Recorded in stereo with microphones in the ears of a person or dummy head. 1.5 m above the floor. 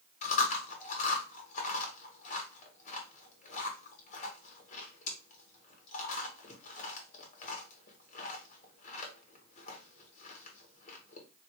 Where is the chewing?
50° left (ahead or behind), 1.1 m.